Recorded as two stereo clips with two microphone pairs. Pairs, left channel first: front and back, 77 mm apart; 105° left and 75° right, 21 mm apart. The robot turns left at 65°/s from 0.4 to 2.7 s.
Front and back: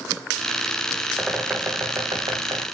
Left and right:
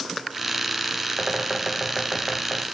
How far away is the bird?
About 4 m.